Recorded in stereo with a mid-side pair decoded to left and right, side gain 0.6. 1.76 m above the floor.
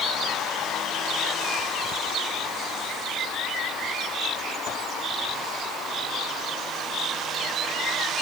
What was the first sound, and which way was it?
Only background noise.